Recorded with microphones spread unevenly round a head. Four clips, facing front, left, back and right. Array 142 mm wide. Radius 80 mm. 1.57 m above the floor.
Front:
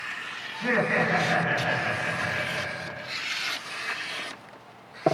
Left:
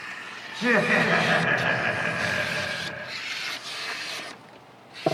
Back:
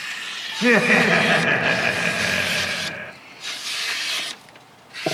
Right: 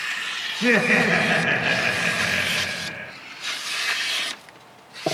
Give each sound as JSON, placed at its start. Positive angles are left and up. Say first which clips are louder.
{"t": 0.5, "sound": "laughter", "louder": "right 2 dB, back 8 dB", "azimuth_deg": 180, "distance_m": 2.0}